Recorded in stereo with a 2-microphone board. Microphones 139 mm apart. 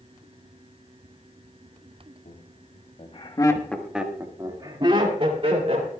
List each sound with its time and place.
2.2 s laughter: 70° left (ahead or behind), 2 m; by 5.9 s 50° right (ahead or behind), 3.5 m